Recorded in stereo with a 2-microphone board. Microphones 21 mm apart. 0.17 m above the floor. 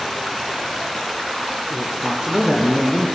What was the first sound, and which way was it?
A man speaking, 20° right (ahead or behind).